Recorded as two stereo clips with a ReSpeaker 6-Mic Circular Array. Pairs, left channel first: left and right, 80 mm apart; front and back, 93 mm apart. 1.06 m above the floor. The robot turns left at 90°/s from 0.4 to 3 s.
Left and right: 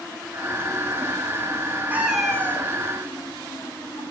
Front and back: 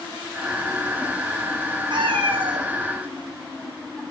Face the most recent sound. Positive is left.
turn(degrees=110)